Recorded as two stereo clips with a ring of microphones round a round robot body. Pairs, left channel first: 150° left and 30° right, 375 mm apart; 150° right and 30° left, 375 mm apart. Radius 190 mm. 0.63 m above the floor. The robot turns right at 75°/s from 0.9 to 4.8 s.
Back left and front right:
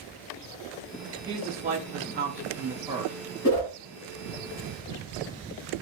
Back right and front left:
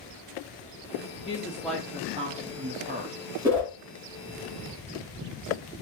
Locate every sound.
1.2 s a woman speaking: 95° right, 0.5 m; by 3.1 s 45° left, 0.5 m
3.4 s a whoosh: 110° left, 1.6 m; by 3.7 s 130° left, 1.6 m